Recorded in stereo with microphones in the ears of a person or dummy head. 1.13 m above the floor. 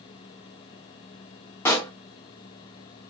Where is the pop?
15° left (ahead or behind), 0.5 m.